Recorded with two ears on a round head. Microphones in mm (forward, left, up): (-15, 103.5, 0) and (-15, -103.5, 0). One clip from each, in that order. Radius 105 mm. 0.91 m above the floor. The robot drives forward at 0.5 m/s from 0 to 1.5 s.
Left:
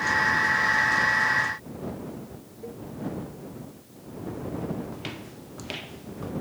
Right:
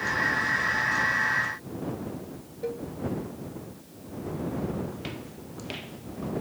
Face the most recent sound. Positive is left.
turn(degrees=20)  # may be behind; listen again after turning